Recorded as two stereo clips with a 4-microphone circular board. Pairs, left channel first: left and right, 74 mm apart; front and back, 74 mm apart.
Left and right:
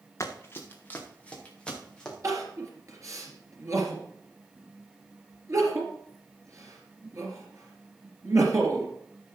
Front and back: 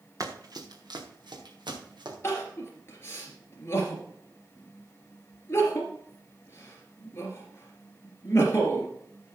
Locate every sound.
0.2 s running footsteps: 140° left, 1.8 m; by 2.1 s 170° left, 4 m
2.2 s crying: 50° right, 3 m